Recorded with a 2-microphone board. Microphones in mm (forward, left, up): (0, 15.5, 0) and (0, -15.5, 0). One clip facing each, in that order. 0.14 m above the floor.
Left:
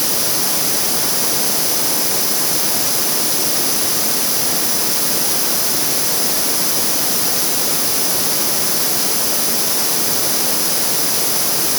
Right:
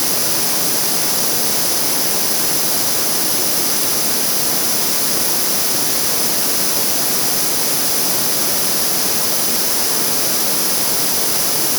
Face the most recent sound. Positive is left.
No sound to turn to.